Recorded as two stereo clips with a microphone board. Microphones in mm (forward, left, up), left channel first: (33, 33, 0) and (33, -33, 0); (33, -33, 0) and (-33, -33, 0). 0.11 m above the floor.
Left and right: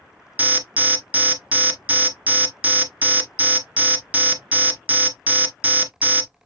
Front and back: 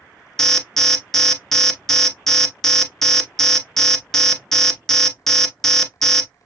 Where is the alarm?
75° right, 0.9 m.